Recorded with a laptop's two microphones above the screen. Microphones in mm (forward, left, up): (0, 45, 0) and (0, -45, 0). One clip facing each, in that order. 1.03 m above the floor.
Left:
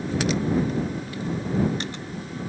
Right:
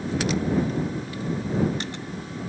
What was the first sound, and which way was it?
Only background noise.